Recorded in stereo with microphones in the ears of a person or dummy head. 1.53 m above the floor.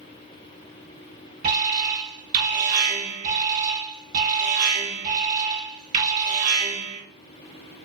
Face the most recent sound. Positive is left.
turn(degrees=-50)  # may be behind; listen again after turning